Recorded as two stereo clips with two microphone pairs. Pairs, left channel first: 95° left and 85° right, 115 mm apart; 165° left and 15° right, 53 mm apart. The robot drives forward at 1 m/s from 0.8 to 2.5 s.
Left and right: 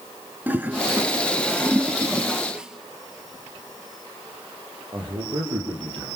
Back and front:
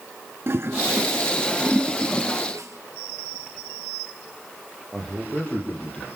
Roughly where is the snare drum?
Ahead.